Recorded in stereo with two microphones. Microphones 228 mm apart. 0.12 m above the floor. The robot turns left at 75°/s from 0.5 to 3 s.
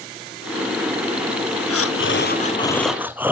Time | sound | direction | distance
1.7 | breathing | 90° left | 0.6 m